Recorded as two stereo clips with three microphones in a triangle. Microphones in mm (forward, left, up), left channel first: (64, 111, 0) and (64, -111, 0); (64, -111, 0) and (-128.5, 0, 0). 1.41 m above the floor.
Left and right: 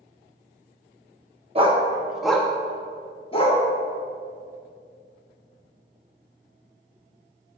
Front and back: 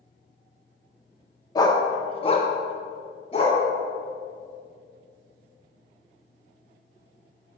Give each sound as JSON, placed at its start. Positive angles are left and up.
{"t": 1.6, "sound": "a dog barking", "azimuth_deg": -85, "distance_m": 0.8}